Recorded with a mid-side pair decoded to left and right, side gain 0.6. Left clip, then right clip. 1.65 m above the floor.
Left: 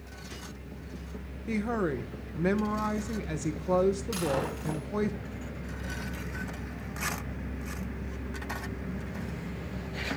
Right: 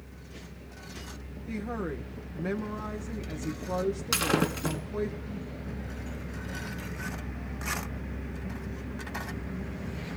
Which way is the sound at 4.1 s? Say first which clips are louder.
Right 3 dB; 55° right.